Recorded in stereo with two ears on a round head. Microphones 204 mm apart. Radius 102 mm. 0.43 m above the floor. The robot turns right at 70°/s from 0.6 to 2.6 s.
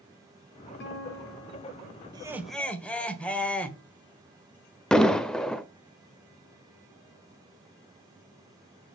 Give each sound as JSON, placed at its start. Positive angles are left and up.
{"t": 0.8, "sound": "a guitar", "azimuth_deg": 50, "distance_m": 4.0}
{"t": 2.1, "sound": "laughter", "azimuth_deg": -25, "distance_m": 1.5}
{"t": 4.9, "sound": "an explosion", "side_deg": 5, "distance_m": 0.7}